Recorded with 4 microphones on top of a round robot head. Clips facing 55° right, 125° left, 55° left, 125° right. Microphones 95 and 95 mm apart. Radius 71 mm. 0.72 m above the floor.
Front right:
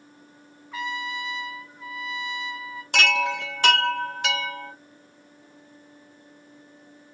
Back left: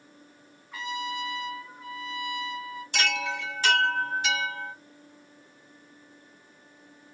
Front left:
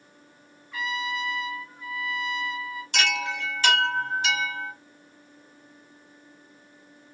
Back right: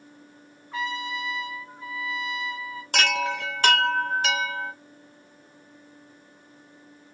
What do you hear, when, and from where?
0.7 s a trumpet: 65° right, 1.0 m
2.9 s a chime: 85° right, 1.0 m